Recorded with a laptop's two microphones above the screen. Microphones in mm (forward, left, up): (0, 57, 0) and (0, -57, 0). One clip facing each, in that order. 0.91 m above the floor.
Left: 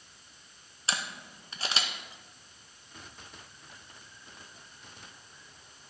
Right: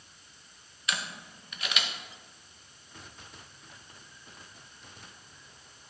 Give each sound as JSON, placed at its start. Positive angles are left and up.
{"t": 0.9, "sound": "a camera shutter", "side_deg": 30, "distance_m": 0.7}